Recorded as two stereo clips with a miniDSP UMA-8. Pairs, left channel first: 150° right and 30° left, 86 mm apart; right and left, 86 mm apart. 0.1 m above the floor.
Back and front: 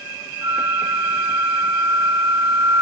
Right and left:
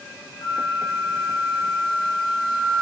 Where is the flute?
45° right, 3 m.